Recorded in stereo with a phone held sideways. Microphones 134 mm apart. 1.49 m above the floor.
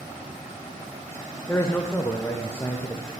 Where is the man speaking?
15° left (ahead or behind), 0.5 m.